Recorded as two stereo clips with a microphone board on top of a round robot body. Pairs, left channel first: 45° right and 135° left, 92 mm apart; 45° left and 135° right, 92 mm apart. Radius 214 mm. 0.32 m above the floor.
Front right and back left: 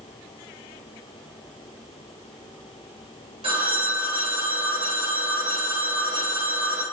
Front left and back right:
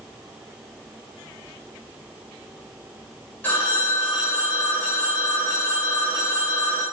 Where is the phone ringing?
115° left, 3.5 m.